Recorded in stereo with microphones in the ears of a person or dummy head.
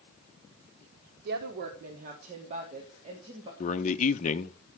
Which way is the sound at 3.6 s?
35° left (ahead or behind).